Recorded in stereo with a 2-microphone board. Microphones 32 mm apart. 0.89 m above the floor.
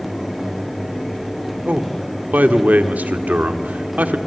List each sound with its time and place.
1.6 s a man speaking: 80° right, 1.8 m